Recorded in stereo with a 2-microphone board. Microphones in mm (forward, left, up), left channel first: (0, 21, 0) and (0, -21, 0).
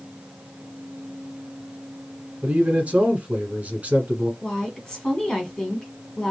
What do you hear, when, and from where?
2.4 s a man speaking: 35° right (ahead or behind), 1.5 m
4.4 s a woman speaking: 20° left (ahead or behind), 1.5 m